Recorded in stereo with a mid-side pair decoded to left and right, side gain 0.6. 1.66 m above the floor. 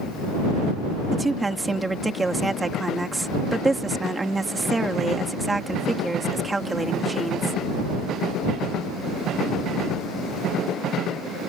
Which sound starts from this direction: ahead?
A woman speaking, at 1.1 s.